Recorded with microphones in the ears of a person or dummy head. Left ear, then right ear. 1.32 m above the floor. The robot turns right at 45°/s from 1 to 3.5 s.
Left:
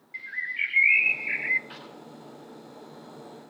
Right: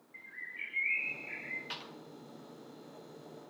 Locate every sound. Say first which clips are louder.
0.1 s a bird: left 13 dB; 65° left (ahead or behind), 0.7 m; by 1.6 s 60° left (ahead or behind), 0.7 m
1.7 s a clap: even; 35° right (ahead or behind), 4.5 m; by 1.9 s 25° right (ahead or behind), 4.5 m